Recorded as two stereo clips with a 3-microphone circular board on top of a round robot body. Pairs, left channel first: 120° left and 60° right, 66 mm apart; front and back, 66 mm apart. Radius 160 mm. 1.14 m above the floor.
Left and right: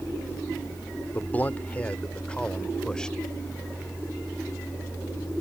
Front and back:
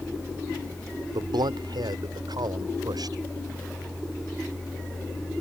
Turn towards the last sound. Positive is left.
turn(degrees=-160)